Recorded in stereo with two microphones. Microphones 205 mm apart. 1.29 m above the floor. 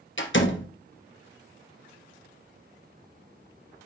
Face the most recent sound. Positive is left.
turn(degrees=70)  # may be behind; listen again after turning